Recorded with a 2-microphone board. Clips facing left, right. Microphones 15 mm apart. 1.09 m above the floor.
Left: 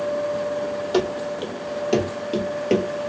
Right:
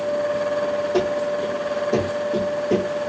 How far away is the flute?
No flute in this recording.